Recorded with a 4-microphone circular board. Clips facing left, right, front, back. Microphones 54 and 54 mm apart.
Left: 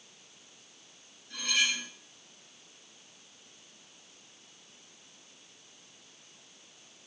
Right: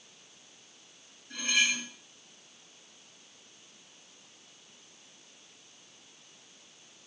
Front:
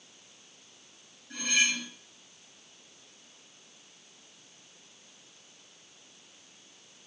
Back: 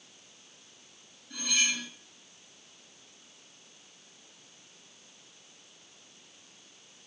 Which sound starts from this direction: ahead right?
Cutlery clinking, at 1.3 s.